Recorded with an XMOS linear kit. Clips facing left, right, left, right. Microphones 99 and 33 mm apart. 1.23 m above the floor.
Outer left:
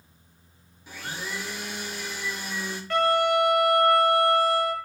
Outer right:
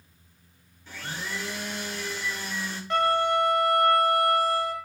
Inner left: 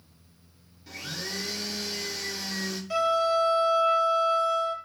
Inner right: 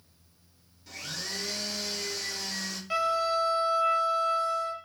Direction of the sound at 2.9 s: 20° right (ahead or behind).